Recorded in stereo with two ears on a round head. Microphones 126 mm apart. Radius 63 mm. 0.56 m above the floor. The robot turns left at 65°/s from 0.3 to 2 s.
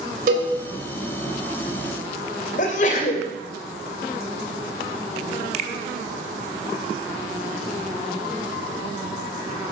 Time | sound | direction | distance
0.3 | a cowbell | 65° right (ahead or behind) | 3 m
2.6 | a sneeze | 55° left (ahead or behind) | 2.5 m
5.5 | a finger snap | 50° right (ahead or behind) | 1.0 m